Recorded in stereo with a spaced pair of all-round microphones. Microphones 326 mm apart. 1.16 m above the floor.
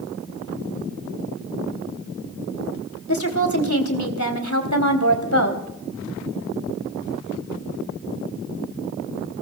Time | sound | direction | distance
3.1 | a woman speaking | 60° left (ahead or behind) | 3 m